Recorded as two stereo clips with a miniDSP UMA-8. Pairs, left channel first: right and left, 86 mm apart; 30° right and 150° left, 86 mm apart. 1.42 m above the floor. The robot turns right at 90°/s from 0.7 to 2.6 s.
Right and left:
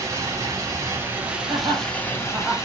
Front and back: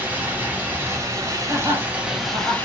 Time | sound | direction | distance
0.0 | running water | 95° left | 0.8 m
1.5 | laughter | 85° left | 1.5 m